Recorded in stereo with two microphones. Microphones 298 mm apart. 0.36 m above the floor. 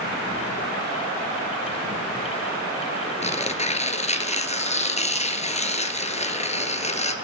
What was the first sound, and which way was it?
Tearing paper, 20° left (ahead or behind).